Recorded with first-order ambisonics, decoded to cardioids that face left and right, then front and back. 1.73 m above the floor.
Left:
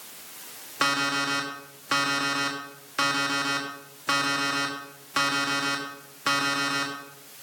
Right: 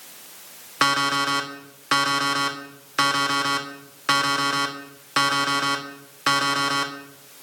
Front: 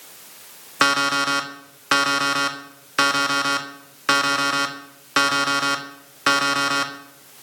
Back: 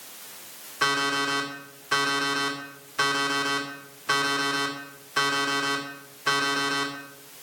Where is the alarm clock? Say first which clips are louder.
Right 4 dB, front 6 dB; 20° right, 1.6 m.